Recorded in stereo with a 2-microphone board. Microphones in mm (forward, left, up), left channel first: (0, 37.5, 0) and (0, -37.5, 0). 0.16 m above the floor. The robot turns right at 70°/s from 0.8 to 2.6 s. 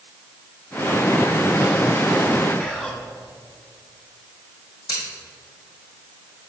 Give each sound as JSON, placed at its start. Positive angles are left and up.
{"t": 2.6, "sound": "whispering", "side_deg": 10, "distance_m": 1.2}
{"t": 4.9, "sound": "scissors", "side_deg": 75, "distance_m": 3.0}